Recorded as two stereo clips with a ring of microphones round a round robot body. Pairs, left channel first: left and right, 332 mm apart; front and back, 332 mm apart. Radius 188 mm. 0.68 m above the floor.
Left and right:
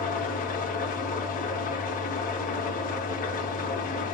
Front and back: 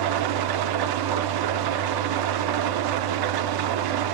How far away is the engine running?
About 0.7 m.